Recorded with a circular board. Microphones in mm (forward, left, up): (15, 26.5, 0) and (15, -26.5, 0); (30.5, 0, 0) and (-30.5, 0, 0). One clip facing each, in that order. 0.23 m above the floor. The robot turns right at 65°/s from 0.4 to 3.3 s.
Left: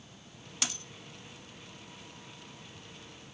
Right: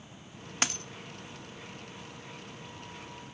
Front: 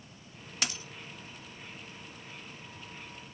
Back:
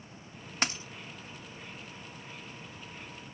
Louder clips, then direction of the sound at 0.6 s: Right 6 dB, back 4 dB; 130° right.